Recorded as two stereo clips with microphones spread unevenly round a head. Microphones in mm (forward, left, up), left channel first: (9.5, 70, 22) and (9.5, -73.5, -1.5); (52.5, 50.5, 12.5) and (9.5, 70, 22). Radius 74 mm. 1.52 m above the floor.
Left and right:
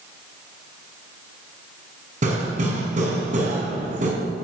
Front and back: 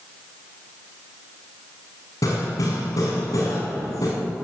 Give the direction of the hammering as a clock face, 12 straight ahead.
2 o'clock.